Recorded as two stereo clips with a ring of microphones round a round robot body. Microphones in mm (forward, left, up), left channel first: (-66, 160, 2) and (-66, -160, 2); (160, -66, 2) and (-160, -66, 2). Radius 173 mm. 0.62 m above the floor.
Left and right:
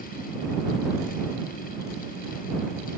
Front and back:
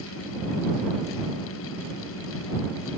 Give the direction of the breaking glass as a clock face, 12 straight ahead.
I don't hear breaking glass.